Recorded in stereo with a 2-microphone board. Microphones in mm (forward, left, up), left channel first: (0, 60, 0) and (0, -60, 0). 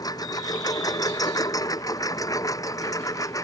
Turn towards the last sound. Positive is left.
turn(degrees=25)  # may be behind; listen again after turning